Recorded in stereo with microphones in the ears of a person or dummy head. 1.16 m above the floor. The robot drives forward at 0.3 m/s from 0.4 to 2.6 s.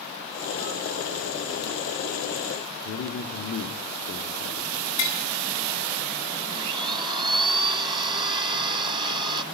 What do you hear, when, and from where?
2.9 s a man speaking: 60° left (ahead or behind), 2.5 m
5.0 s tapping: 35° left (ahead or behind), 4.5 m
6.5 s a blender: 25° right (ahead or behind), 0.9 m